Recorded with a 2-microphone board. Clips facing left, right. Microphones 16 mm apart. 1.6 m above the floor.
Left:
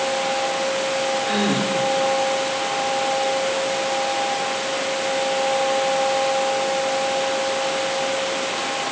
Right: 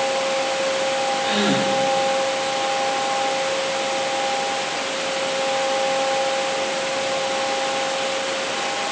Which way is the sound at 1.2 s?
65° right (ahead or behind).